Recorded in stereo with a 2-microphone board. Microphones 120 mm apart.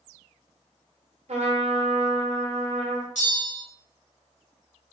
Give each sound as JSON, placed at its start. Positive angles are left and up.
{"t": 1.3, "sound": "a trumpet", "side_deg": -60, "distance_m": 0.9}
{"t": 3.1, "sound": "a bell", "side_deg": 80, "distance_m": 1.4}